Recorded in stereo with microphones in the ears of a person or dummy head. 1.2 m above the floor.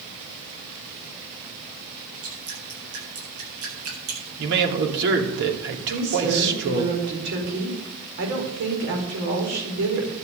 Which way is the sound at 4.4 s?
60° right (ahead or behind).